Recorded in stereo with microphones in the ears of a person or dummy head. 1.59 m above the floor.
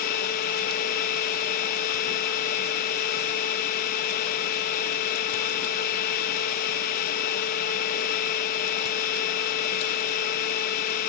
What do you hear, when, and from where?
0.0 s a machine running: 50° left (ahead or behind), 1.4 m